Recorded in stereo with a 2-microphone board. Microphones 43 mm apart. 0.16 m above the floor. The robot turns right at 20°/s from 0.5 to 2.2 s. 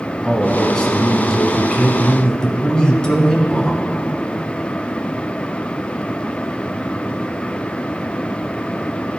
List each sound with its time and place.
0.2 s a man speaking: 10° left (ahead or behind), 1.2 m; by 3.8 s 20° left (ahead or behind), 1.2 m